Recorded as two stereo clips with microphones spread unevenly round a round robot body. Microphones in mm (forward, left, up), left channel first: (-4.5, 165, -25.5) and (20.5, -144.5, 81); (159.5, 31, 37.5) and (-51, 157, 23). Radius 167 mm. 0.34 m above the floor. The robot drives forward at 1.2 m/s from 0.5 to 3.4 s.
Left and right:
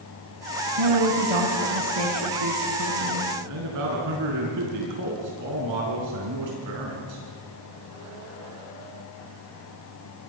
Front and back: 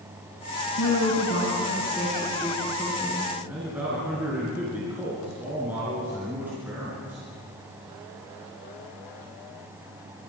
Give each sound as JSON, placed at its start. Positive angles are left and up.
{"t": 0.8, "sound": "a woman speaking", "azimuth_deg": -75, "distance_m": 3.5}
{"t": 3.5, "sound": "a man speaking", "azimuth_deg": -125, "distance_m": 4.5}